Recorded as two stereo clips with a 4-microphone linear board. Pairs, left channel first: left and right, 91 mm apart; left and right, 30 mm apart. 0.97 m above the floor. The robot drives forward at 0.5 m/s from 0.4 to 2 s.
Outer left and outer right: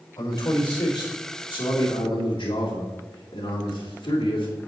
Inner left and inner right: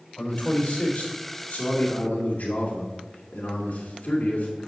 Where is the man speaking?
45° left (ahead or behind), 2.5 m; by 4.7 s 60° left (ahead or behind), 2 m.